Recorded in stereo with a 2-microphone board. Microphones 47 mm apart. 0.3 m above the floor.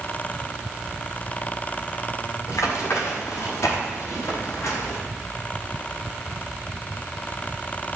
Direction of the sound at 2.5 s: 75° left (ahead or behind).